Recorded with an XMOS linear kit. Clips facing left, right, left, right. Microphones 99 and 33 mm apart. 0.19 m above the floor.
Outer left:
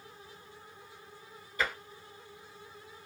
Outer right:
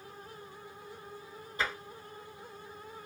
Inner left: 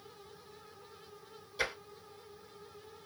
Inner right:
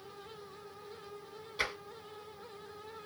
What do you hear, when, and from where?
1.6 s tapping: 25° right (ahead or behind), 2.0 m